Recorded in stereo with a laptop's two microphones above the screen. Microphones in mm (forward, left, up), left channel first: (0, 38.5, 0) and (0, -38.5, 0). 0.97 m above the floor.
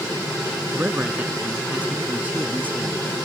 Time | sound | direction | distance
0.7 | a man speaking | 20° right (ahead or behind) | ?